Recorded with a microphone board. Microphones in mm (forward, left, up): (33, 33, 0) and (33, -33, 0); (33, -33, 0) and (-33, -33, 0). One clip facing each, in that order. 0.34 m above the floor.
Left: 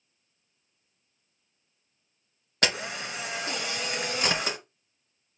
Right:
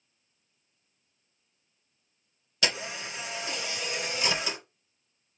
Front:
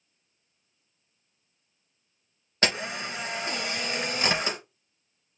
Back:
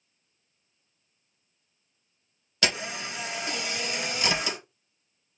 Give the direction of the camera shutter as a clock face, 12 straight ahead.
10 o'clock.